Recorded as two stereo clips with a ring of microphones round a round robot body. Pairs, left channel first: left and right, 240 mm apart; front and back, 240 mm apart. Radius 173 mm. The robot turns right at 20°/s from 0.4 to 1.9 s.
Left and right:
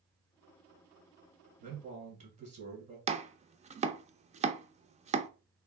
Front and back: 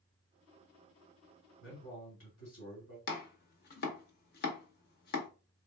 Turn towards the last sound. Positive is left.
turn(degrees=-35)